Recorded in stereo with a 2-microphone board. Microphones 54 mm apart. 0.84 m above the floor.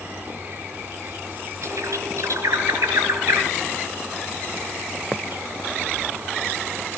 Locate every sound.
0.0 s an insect: 45° right (ahead or behind), 2.5 m
1.6 s a bird: 85° right, 5.5 m